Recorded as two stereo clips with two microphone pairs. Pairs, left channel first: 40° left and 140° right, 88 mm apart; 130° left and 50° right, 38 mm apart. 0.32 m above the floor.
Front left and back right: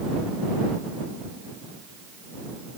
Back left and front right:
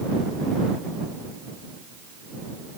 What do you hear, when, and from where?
Only background noise.